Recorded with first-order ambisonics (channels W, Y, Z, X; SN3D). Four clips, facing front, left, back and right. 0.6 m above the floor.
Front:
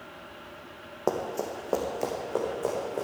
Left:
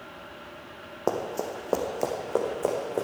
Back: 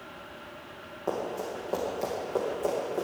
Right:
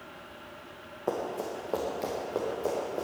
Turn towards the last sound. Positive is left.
turn(degrees=85)